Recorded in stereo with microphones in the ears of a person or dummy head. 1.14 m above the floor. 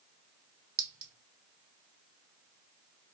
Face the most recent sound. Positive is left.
turn(degrees=-15)  # may be behind; listen again after turning